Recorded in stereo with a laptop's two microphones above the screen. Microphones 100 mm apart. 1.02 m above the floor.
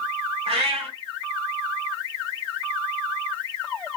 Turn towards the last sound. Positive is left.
turn(degrees=-80)